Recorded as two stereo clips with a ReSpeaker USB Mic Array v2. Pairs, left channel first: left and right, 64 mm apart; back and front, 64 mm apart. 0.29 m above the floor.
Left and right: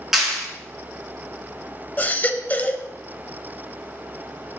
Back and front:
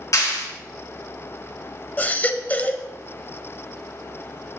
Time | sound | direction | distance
0.1 | a clap | 175° right | 3.5 m
2.0 | a baby crying | 135° left | 0.6 m